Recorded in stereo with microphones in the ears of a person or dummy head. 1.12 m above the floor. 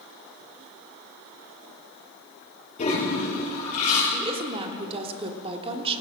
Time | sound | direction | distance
2.8 | a toilet flushing | 35° left (ahead or behind) | 9 m
4.1 | a woman speaking | 30° right (ahead or behind) | 3 m